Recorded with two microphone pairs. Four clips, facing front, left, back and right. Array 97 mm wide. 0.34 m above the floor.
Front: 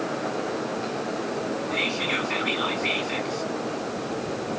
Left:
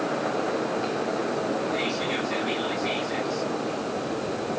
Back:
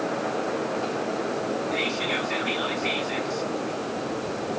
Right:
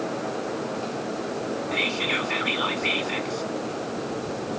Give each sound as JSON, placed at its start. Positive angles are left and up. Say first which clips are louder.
{"t": 1.7, "sound": "whispering", "louder": "left 1 dB, even", "azimuth_deg": -70, "distance_m": 1.2}